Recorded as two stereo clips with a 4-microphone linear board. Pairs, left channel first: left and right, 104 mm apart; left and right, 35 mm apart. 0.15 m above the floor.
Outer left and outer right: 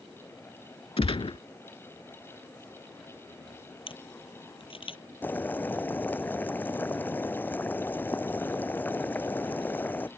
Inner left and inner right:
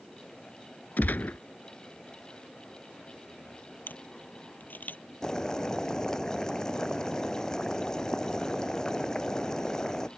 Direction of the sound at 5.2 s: 20° left (ahead or behind).